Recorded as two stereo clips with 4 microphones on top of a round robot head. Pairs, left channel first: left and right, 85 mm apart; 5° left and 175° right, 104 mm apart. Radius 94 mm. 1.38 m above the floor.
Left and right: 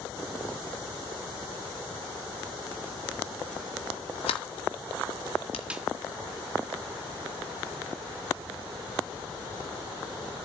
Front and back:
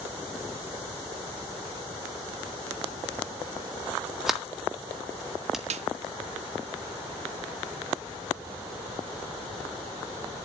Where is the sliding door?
95° left, 1.7 m.